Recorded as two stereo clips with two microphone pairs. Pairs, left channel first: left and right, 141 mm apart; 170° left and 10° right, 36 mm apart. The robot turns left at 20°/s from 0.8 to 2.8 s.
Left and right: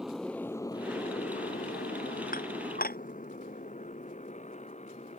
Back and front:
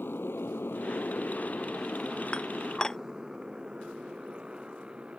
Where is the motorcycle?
175° right; by 5.2 s 50° left.